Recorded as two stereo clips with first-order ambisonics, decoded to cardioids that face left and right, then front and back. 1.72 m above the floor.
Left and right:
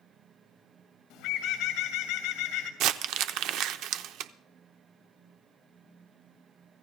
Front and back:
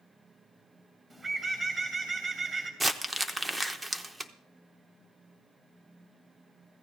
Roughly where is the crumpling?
Right.